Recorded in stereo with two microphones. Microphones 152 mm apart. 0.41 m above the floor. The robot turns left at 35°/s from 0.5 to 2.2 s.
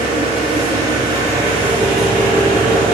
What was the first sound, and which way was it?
An engine running, 130° right.